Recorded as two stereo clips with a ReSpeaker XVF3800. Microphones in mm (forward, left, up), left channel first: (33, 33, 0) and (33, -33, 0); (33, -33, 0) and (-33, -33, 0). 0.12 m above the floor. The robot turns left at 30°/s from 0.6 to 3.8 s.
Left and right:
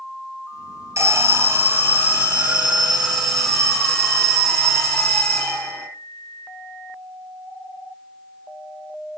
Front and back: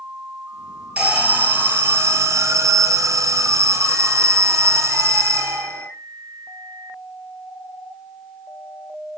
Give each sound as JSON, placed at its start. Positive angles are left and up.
{"t": 1.0, "sound": "an alarm", "azimuth_deg": -105, "distance_m": 2.0}